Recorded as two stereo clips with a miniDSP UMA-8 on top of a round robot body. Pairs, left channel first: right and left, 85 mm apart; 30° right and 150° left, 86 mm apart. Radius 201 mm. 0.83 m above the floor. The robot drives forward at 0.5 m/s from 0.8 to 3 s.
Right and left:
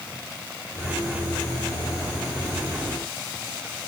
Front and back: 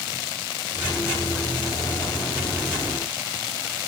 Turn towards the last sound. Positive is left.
No sound to turn to.